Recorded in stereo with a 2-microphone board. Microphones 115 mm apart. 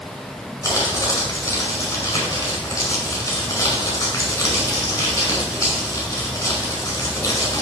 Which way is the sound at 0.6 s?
30° left (ahead or behind).